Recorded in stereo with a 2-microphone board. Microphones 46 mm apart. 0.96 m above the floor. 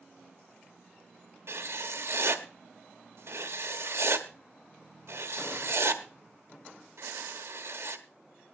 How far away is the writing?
About 1.2 m.